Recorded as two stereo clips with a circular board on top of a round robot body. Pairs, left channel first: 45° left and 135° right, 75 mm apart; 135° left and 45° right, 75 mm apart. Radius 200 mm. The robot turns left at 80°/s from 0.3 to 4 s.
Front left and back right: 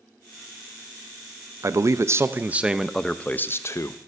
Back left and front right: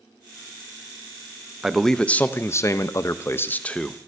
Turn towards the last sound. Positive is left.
turn(degrees=45)